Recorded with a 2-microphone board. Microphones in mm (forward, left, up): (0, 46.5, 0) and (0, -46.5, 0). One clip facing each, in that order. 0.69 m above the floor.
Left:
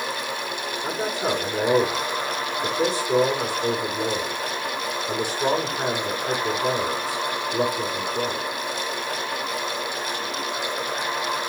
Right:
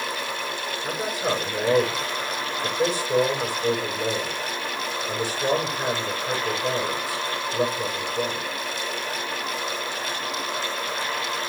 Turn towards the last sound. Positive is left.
turn(degrees=65)  # may be behind; listen again after turning